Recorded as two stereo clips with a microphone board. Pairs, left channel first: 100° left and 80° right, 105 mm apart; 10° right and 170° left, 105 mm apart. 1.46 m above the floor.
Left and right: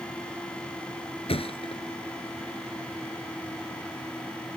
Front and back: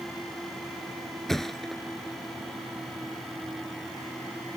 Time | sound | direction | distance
1.3 | a thud | 75° left | ?